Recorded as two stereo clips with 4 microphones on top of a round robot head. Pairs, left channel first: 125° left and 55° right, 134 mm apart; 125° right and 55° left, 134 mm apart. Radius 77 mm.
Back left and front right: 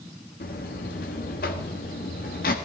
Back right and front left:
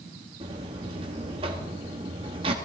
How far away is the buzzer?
About 1.6 m.